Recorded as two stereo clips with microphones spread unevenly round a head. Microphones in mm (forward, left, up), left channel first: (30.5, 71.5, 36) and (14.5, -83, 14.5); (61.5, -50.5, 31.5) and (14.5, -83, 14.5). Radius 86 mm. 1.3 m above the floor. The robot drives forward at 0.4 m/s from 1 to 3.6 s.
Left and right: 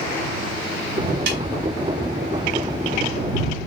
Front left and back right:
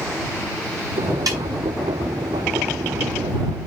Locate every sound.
1.3 s a snare drum: 140° right, 2.5 m